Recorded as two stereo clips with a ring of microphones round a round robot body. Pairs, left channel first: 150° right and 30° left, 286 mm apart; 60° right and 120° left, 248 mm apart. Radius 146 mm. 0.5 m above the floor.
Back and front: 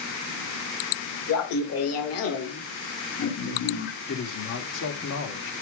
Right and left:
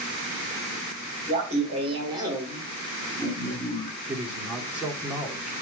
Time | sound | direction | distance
1.3 | laughter | straight behind | 1.9 m
4.1 | a man speaking | 155° right | 1.4 m